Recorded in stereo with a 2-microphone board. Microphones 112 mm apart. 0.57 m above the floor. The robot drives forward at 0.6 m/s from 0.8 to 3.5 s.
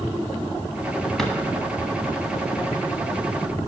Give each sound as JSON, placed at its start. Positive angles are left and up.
{"t": 1.2, "sound": "a drawer", "side_deg": 5, "distance_m": 1.2}